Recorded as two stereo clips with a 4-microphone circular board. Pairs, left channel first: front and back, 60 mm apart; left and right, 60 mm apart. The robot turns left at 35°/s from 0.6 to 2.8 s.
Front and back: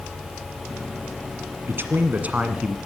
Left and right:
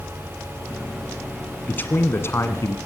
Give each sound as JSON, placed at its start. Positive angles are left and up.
{"t": 1.7, "sound": "a man speaking", "azimuth_deg": 145, "distance_m": 1.7}